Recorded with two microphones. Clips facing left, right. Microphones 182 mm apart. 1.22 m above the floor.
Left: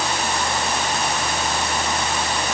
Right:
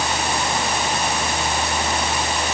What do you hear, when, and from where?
Only background noise.